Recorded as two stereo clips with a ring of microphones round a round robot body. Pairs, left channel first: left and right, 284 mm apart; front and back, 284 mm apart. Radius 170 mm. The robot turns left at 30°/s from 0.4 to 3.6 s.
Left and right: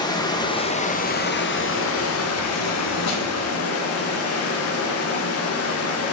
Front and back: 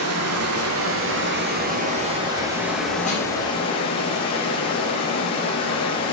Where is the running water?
165° left, 0.9 m; by 6.1 s 70° left, 0.9 m.